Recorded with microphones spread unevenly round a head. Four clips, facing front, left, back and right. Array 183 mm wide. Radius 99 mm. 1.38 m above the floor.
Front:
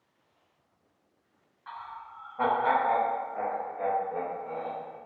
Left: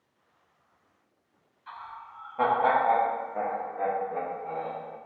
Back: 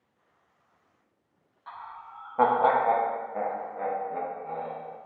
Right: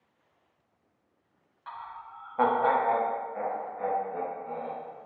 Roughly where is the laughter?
Behind right.